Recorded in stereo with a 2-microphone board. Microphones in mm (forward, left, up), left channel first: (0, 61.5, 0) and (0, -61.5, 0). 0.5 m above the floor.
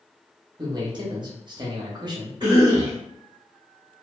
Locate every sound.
0.6 s a man speaking: 35° right (ahead or behind), 0.8 m
2.4 s a cough: 35° right (ahead or behind), 1.2 m